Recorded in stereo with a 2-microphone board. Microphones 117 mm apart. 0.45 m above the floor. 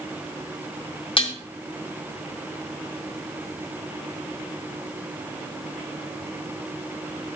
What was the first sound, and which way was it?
Dishes clattering, 50° left (ahead or behind).